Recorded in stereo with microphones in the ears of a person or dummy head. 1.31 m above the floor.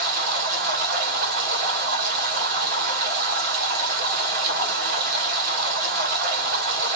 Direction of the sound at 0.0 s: 55° right (ahead or behind).